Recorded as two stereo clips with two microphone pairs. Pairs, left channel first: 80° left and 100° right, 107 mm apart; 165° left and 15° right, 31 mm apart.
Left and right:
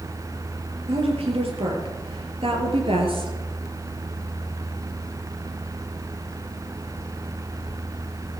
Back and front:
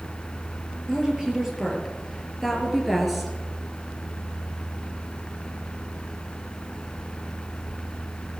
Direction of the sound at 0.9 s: 85° right.